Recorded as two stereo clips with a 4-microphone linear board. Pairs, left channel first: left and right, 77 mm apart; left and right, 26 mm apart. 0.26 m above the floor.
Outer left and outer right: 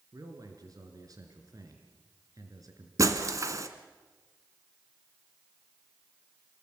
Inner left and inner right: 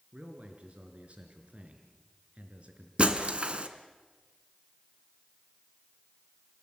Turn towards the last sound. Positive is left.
turn(degrees=-45)  # may be behind; listen again after turning